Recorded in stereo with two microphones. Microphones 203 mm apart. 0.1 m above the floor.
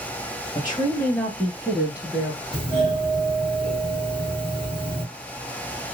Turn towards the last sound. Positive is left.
turn(degrees=-25)  # may be behind; listen again after turning